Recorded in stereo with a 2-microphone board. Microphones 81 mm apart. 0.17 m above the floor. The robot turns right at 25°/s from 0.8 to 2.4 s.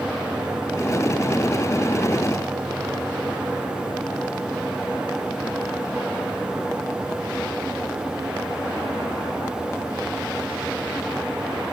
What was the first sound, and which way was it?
Only background noise.